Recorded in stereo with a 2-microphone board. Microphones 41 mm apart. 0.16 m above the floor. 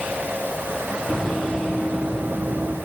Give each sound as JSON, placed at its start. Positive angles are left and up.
{"t": 1.1, "sound": "running footsteps", "side_deg": -5, "distance_m": 2.5}